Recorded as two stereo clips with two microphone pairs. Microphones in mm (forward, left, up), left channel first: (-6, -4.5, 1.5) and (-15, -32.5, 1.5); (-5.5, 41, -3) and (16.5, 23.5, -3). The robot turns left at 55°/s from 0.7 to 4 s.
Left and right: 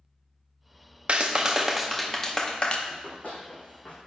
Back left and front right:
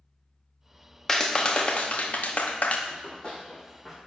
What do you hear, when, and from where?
1.1 s a clap: 155° right, 0.6 m; by 2.8 s 115° left, 0.6 m
2.9 s running footsteps: 120° left, 2 m; by 4.0 s 30° left, 2 m